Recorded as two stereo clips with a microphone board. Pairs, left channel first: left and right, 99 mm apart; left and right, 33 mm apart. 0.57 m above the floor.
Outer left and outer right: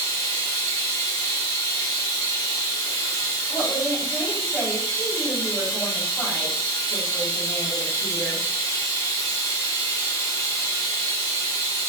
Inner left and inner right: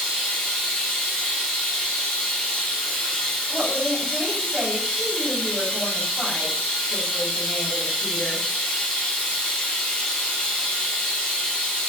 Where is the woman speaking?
5° right (ahead or behind), 1.8 m.